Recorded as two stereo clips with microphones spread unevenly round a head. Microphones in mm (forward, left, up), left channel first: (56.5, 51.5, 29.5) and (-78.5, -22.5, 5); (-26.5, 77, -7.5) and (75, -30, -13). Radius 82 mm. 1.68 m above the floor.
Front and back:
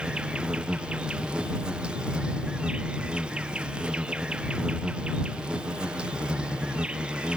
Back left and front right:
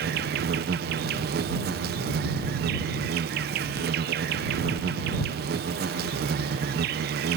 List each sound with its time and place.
0.0 s an insect: 65° right